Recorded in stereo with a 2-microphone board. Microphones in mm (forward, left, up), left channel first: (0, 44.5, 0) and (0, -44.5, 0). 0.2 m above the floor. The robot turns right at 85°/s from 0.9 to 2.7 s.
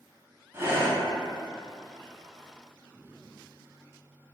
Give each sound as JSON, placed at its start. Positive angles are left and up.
{"t": 0.5, "sound": "breathing", "side_deg": -30, "distance_m": 0.8}